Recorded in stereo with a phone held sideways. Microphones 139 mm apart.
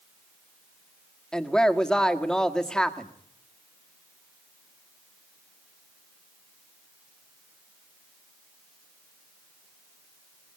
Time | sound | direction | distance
1.3 | a woman speaking | 5° left (ahead or behind) | 1.9 m